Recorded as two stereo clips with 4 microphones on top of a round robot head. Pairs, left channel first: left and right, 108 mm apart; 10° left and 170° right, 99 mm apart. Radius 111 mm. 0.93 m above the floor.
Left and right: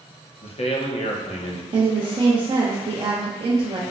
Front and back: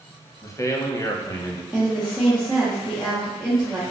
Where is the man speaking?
65° left, 0.6 m.